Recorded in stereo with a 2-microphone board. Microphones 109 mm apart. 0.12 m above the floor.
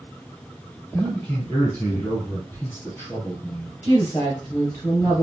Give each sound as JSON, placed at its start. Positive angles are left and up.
{"t": 0.9, "sound": "a man speaking", "side_deg": 25, "distance_m": 2.0}
{"t": 3.8, "sound": "a woman speaking", "side_deg": 30, "distance_m": 2.5}